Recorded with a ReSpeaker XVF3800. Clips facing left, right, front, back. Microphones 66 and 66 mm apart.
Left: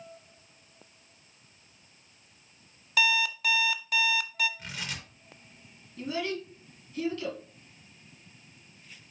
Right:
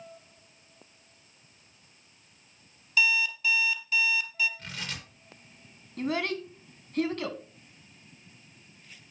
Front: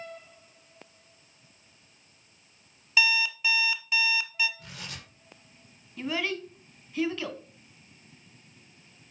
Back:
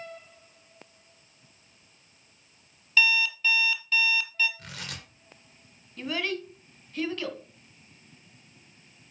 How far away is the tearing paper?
About 3 m.